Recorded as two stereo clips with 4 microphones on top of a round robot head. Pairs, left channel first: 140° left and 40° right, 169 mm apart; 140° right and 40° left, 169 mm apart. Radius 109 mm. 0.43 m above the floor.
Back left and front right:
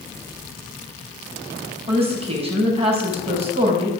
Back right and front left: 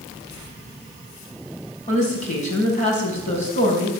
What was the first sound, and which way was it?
A woman speaking, 95° right.